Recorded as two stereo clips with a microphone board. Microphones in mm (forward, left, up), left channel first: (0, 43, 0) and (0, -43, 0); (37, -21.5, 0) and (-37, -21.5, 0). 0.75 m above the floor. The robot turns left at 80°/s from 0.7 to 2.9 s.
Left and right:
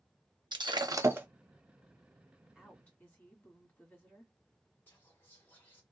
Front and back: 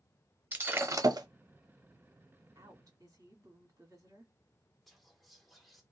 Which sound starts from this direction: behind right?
Breaking glass, at 0.5 s.